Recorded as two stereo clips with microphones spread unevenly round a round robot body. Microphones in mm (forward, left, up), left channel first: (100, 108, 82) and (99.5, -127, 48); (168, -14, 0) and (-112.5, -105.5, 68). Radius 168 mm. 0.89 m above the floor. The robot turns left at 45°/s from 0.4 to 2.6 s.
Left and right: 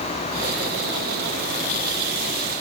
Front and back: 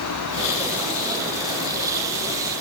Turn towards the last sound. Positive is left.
No sound to turn to.